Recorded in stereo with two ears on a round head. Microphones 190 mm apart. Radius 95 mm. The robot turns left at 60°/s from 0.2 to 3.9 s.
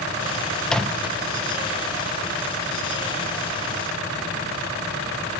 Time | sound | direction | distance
0.6 | a microwave | 5° left (ahead or behind) | 0.6 m